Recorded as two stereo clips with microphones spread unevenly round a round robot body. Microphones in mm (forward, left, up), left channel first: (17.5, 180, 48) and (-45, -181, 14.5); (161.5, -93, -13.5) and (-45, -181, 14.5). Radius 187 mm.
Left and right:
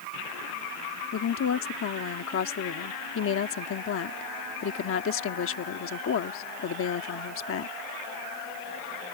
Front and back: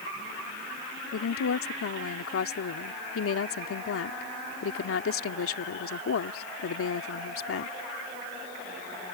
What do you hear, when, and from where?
1.1 s a woman speaking: 25° left